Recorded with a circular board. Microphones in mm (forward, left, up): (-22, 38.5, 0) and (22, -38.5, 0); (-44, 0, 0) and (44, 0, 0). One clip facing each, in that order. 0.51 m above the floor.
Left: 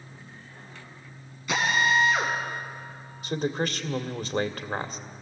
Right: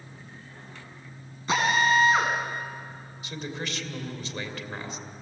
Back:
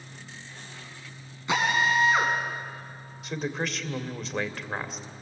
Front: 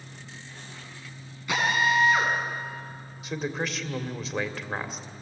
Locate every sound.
1.5 s a drill: 115° right, 4.5 m
3.2 s a man speaking: 90° left, 1.8 m